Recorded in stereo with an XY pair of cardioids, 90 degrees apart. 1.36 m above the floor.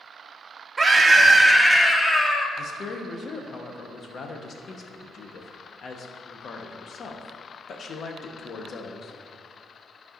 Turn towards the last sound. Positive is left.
turn(degrees=55)